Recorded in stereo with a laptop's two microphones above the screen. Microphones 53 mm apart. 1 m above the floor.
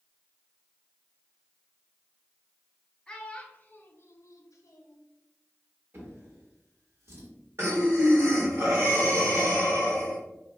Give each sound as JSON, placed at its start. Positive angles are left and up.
{"t": 3.1, "sound": "a child speaking", "side_deg": 15, "distance_m": 0.8}
{"t": 5.9, "sound": "a drawer", "side_deg": -50, "distance_m": 1.4}
{"t": 7.6, "sound": "breathing", "side_deg": -55, "distance_m": 1.5}